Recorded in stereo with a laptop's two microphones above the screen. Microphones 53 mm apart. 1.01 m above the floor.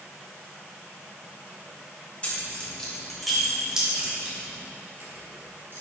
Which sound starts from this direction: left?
Keys jangling, at 2.2 s.